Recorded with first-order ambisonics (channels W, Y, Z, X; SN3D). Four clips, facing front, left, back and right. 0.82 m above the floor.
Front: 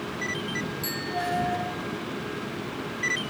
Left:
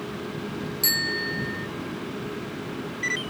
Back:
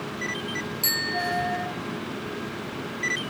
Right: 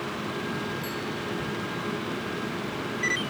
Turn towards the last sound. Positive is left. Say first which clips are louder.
# left 6 dB, back 7 dB
turn(degrees=120)